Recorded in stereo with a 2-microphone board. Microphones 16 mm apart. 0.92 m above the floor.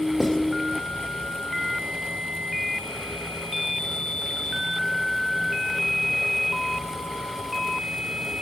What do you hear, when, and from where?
0.2 s writing: centre (ahead or behind), 2.5 m